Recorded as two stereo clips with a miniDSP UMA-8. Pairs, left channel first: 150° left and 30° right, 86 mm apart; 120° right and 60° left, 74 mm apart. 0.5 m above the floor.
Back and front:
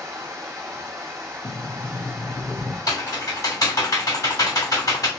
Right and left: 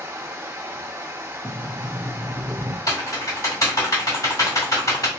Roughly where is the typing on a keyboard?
Behind.